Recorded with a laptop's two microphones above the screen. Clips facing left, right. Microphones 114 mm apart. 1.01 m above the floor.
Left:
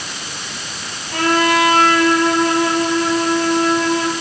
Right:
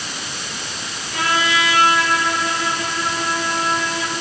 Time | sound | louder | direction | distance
1.1 | a trumpet | left 6 dB | 55° left (ahead or behind) | 9 m